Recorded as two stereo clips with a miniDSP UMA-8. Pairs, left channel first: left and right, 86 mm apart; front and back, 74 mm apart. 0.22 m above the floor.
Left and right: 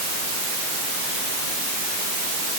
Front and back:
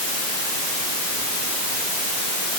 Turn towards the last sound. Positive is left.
No sound to turn to.